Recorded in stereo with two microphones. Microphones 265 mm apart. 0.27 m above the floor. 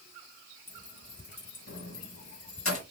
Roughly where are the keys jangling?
Left.